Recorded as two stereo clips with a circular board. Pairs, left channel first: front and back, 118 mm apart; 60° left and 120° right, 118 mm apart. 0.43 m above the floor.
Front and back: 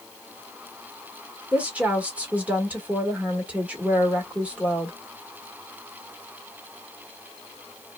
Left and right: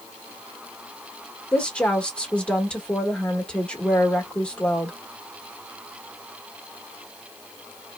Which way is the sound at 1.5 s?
120° left.